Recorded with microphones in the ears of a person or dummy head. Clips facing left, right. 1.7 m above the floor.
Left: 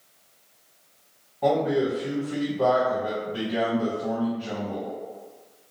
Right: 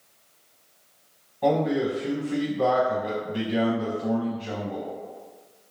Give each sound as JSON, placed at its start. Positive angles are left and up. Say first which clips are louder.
{"t": 1.4, "sound": "a man speaking", "louder": "even", "side_deg": 5, "distance_m": 1.0}